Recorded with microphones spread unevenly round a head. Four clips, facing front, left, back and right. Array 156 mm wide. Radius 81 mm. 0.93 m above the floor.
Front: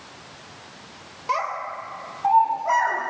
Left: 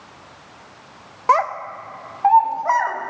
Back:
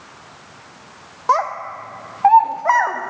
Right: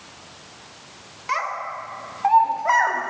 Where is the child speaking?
130° left, 0.5 m; by 3.1 s 165° right, 1.2 m.